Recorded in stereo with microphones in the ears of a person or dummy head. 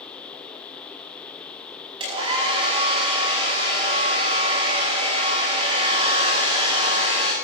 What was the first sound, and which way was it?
A hair dryer, 35° right (ahead or behind).